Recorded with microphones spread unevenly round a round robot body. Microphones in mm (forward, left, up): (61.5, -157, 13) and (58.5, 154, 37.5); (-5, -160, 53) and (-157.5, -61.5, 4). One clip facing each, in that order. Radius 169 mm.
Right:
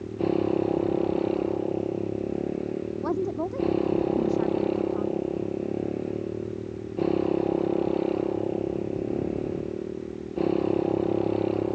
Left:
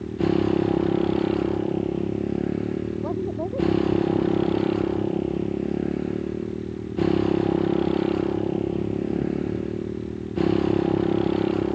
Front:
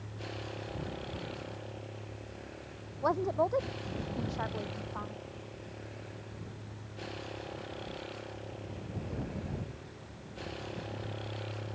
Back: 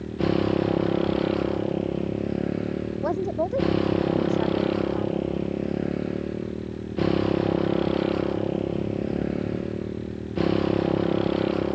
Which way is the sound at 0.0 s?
155° left.